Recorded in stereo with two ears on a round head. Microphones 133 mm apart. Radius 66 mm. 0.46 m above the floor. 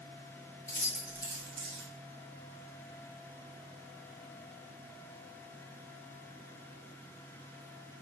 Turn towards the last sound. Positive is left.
turn(degrees=-45)  # may be behind; listen again after turning